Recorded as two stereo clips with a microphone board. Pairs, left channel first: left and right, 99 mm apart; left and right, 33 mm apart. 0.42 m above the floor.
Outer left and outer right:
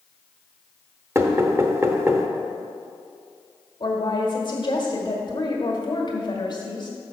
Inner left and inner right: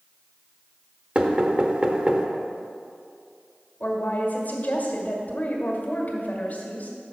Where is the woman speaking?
50° left (ahead or behind), 1.5 m.